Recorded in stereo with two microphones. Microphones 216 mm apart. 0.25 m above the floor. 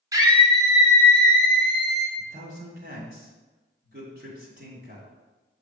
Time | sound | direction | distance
0.1 | a scream | 15° right (ahead or behind) | 1.3 m
2.2 | a man speaking | 50° right (ahead or behind) | 2 m